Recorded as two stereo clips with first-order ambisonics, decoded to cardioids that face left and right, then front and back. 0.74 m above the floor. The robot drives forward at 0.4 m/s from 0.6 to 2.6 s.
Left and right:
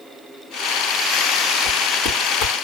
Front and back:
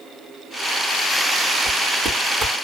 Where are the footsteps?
120° left, 2.5 m; by 2.5 s 125° left, 3 m.